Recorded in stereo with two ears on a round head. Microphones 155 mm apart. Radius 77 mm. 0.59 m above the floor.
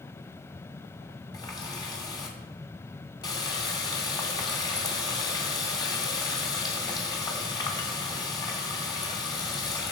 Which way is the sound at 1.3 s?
25° left (ahead or behind).